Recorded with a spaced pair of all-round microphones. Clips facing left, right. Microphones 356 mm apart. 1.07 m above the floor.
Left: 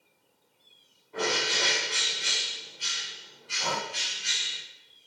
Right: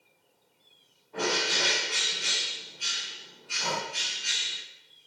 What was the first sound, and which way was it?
A bird, 5° left (ahead or behind).